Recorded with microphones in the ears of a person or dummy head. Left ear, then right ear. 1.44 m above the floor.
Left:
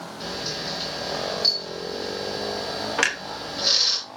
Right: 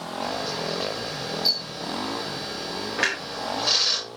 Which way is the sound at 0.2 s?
65° left (ahead or behind).